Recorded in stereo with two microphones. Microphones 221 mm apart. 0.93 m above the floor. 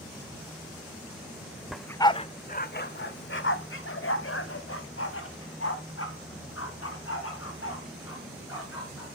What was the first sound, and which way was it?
A dog barking, centre (ahead or behind).